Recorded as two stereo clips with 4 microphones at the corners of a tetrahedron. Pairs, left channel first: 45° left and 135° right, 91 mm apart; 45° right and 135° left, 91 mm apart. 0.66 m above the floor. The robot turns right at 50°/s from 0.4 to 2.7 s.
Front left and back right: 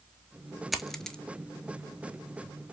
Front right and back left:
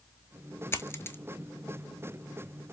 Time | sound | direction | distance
0.7 | a dropped coin | 50° right | 0.6 m